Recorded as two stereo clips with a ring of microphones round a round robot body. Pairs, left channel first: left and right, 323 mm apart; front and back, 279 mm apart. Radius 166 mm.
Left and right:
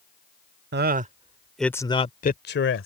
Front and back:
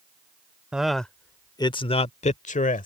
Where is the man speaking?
95° right; by 2.9 s 55° left.